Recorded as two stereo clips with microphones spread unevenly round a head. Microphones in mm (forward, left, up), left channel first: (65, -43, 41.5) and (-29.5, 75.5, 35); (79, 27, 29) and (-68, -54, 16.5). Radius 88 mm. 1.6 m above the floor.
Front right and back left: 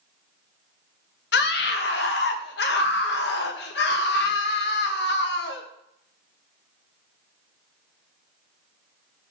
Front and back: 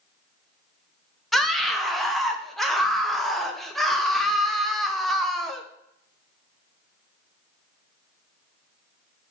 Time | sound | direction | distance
1.3 | a scream | 60° right | 1.1 m